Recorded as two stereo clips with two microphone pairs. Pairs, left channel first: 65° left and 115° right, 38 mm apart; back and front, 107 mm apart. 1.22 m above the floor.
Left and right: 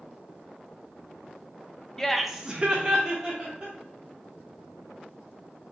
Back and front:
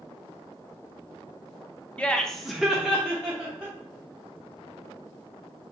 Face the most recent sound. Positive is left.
turn(degrees=-75)